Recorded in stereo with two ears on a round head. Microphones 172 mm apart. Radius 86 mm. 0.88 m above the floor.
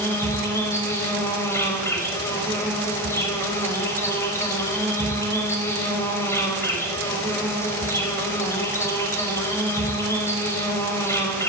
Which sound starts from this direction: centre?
An insect, at 0.0 s.